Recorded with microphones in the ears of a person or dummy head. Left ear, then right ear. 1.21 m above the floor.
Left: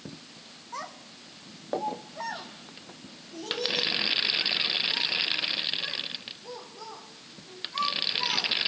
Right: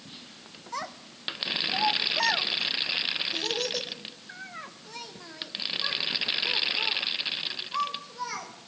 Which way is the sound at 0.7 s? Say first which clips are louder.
Right 3 dB; 25° right (ahead or behind).